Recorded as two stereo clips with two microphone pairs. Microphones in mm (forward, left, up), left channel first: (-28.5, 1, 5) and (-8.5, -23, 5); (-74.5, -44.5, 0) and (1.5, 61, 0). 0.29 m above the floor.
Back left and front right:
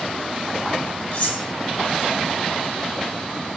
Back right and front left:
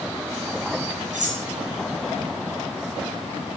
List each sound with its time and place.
1.1 s cutlery clinking: 70° left, 3 m